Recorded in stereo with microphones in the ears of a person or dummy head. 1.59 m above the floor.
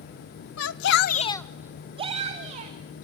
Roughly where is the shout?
Left.